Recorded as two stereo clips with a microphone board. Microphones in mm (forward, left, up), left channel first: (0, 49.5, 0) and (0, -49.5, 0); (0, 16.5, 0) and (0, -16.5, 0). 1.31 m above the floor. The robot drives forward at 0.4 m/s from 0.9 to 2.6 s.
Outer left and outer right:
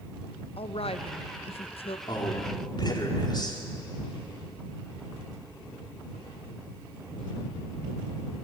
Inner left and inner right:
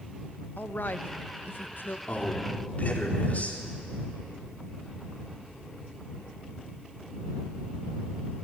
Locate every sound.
0.6 s a woman speaking: 80° left, 0.9 m; by 2.0 s 75° left (ahead or behind), 1.0 m
2.1 s a man speaking: 55° left (ahead or behind), 4.5 m; by 3.6 s 50° left (ahead or behind), 4.5 m